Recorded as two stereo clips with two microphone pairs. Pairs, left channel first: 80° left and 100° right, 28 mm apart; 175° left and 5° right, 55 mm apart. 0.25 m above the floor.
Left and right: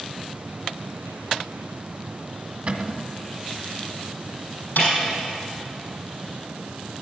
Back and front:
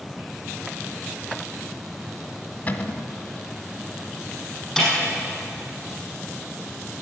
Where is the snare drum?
90° left, 5.5 m.